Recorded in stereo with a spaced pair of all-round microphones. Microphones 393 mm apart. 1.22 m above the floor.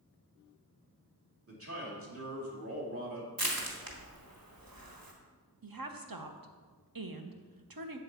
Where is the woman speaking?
60° right (ahead or behind), 0.9 m.